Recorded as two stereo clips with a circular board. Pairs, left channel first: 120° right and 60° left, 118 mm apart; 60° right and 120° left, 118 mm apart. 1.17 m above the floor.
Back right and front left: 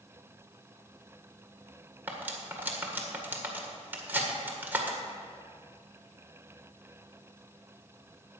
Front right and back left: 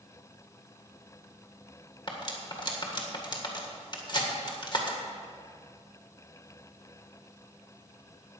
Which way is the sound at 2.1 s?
15° right.